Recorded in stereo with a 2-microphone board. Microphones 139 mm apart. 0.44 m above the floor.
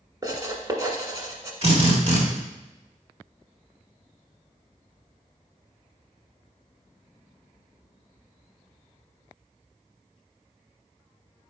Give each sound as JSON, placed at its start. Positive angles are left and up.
{"t": 0.2, "sound": "writing", "side_deg": -30, "distance_m": 1.4}
{"t": 1.6, "sound": "a drill", "side_deg": -45, "distance_m": 1.9}